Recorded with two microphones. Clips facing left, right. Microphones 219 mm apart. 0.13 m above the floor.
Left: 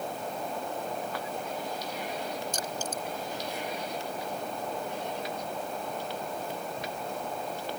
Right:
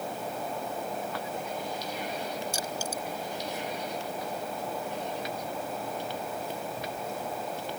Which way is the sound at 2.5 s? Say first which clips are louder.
Even; 10° right (ahead or behind).